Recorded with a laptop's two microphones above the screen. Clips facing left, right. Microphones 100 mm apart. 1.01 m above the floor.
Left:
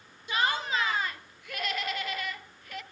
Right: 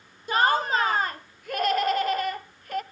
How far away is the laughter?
About 0.5 m.